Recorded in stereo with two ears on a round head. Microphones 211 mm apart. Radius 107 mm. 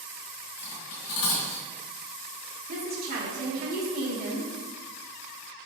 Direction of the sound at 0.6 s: 80° left.